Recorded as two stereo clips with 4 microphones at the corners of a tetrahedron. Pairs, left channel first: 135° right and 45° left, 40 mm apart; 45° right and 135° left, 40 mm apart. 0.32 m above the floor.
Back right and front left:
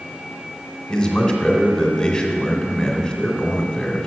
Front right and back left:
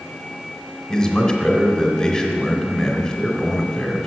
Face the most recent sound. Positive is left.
turn(degrees=-85)